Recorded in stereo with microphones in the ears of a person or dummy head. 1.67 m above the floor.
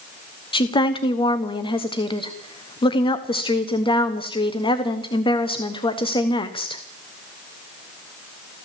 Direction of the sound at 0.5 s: 30° left (ahead or behind).